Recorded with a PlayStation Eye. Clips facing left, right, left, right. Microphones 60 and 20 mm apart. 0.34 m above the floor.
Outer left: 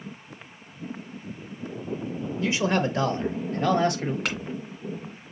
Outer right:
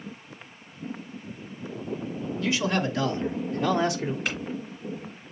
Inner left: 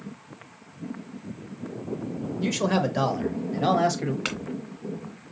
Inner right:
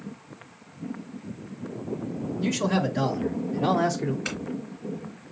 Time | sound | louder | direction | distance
2.4 | a man speaking | outer left 2 dB, inner left 1 dB | 25° left (ahead or behind) | 1.1 m
4.2 | a clink | outer left 1 dB, inner left 1 dB | 75° left (ahead or behind) | 2.5 m